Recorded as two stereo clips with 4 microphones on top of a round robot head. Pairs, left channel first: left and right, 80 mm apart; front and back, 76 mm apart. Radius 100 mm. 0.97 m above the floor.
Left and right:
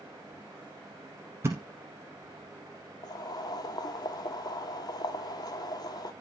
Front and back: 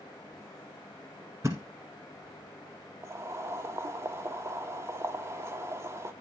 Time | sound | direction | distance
1.4 | a thud | 125° right | 0.9 m
3.0 | boiling | 125° left | 0.8 m